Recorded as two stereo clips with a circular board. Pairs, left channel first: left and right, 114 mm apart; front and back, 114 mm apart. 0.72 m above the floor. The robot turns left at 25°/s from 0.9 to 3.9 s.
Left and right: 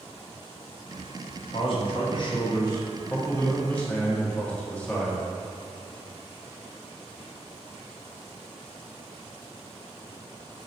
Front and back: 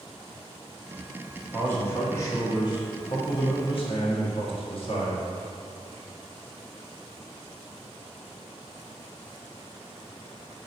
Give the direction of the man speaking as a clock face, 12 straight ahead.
10 o'clock.